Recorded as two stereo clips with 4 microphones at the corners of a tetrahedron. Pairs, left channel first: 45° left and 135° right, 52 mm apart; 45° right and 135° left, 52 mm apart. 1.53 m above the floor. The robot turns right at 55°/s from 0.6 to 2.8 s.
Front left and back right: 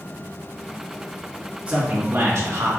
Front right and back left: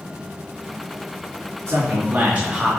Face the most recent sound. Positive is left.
turn(degrees=-135)